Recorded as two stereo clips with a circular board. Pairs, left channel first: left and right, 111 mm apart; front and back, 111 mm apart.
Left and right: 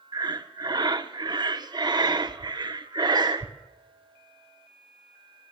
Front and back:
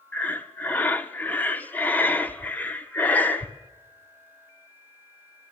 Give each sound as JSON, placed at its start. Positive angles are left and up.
{"t": 0.1, "sound": "breathing", "azimuth_deg": -70, "distance_m": 0.6}